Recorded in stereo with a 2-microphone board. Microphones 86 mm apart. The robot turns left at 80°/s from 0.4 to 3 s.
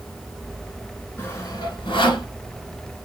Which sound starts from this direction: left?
Sawing, at 1.2 s.